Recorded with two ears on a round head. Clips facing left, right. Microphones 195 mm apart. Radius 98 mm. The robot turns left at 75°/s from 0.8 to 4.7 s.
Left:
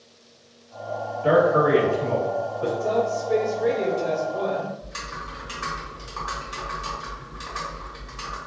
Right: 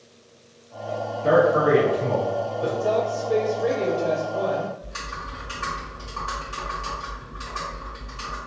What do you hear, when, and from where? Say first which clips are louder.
1.2 s a man speaking: even; 10° left (ahead or behind), 1.4 m; by 2.7 s 25° left (ahead or behind), 1.4 m
2.8 s a woman speaking: even; 175° right, 1.5 m; by 4.7 s 45° left, 1.5 m
4.8 s typing on a keyboard: even; 20° left (ahead or behind), 1.2 m